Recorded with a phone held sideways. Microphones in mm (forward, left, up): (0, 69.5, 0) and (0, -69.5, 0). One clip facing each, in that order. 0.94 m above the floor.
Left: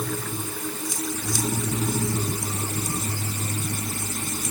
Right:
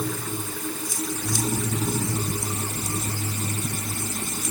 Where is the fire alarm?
I don't hear a fire alarm.